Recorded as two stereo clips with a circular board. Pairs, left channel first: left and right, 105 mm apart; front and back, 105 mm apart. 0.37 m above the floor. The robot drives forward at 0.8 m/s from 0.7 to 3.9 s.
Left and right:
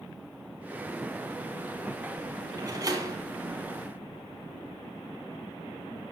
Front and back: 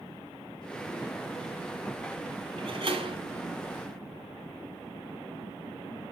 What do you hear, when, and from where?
2.6 s a door slam: 140° right, 7 m; by 3.2 s 145° right, 7.5 m